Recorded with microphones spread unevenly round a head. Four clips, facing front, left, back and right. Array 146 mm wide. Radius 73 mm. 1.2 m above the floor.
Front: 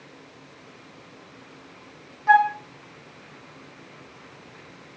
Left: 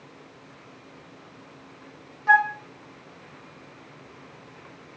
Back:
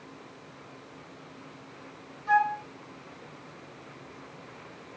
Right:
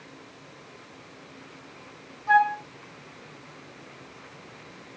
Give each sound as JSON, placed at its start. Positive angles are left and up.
{"t": 2.3, "sound": "a flute", "azimuth_deg": 40, "distance_m": 0.9}